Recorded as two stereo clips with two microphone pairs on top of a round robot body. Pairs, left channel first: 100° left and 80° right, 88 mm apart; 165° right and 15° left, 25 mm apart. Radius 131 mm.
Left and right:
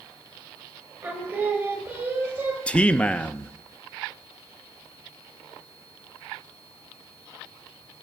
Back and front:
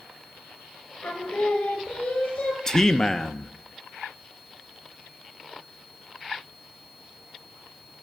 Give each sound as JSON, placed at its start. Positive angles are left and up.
{"t": 1.0, "sound": "singing", "azimuth_deg": -145, "distance_m": 2.0}
{"t": 2.7, "sound": "a man speaking", "azimuth_deg": 110, "distance_m": 0.6}